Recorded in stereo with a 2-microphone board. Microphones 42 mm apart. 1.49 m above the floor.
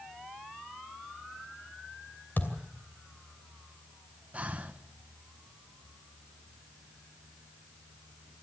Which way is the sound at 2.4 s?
55° left (ahead or behind).